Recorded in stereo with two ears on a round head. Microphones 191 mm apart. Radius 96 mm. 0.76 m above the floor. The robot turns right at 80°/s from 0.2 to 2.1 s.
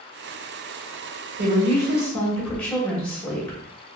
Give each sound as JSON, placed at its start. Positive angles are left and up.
{"t": 1.4, "sound": "a woman speaking", "azimuth_deg": -50, "distance_m": 1.4}